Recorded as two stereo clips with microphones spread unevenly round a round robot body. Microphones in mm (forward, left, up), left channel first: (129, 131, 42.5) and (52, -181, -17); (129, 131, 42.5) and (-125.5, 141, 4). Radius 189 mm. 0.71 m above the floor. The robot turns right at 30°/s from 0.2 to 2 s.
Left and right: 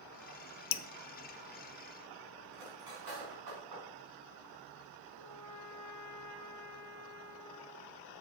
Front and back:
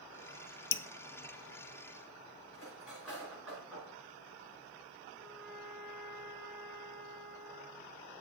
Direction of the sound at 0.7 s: 50° left.